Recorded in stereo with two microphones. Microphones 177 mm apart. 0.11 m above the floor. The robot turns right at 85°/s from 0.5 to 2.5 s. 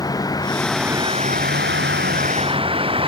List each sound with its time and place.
0.0 s a vehicle: 160° left; by 3.1 s 30° right